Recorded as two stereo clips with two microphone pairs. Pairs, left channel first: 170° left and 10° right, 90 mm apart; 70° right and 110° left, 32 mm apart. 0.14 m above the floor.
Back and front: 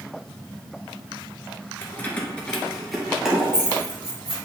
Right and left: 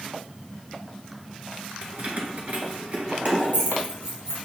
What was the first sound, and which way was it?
Keys jangling, 115° left.